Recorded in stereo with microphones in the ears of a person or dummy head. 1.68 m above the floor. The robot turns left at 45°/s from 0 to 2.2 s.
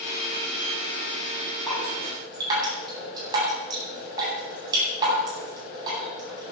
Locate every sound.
1.7 s dripping: 5° left (ahead or behind), 9.5 m; by 6.5 s 20° right (ahead or behind), 9.5 m